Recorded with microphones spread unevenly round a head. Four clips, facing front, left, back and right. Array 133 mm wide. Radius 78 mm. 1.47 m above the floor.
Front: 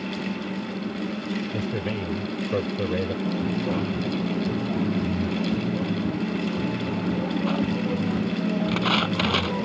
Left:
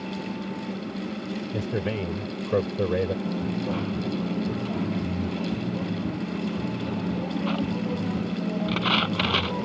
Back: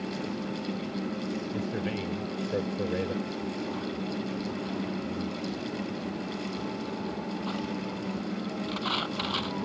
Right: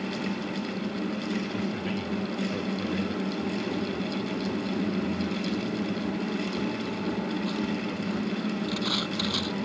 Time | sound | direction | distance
1.5 | a man speaking | 90° left | ?
3.2 | a dropped coin | 25° left | ?